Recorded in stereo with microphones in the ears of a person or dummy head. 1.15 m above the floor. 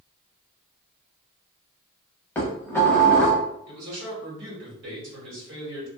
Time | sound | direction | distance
2.4 | dishes clattering | 10° left (ahead or behind) | 0.7 m
3.7 | a man speaking | 65° right (ahead or behind) | 1.8 m